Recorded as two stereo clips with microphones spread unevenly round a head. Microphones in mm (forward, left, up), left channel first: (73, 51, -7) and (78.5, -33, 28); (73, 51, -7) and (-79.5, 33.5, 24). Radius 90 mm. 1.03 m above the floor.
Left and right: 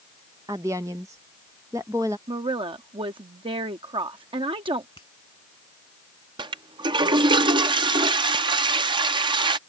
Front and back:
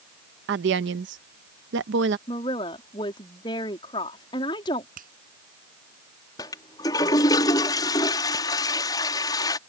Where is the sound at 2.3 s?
60° right.